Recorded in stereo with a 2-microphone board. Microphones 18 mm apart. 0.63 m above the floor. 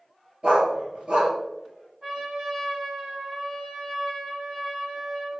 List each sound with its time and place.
0.4 s a dog barking: 55° right (ahead or behind), 3 m
2.0 s a trumpet: 30° right (ahead or behind), 2.5 m